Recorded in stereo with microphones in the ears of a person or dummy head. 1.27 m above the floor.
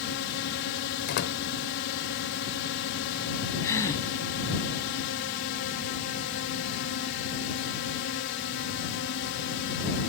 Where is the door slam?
50° left (ahead or behind).